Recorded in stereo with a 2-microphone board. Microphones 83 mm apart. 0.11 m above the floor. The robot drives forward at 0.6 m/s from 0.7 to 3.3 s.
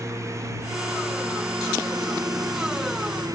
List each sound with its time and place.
0.0 s a lawn mower: 35° right (ahead or behind); by 3.4 s 40° right (ahead or behind)